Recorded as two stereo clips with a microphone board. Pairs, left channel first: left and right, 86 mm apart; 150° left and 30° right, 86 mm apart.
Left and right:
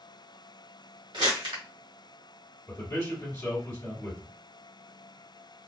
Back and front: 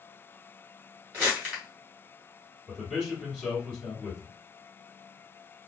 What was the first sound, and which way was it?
Crumpling, 95° right.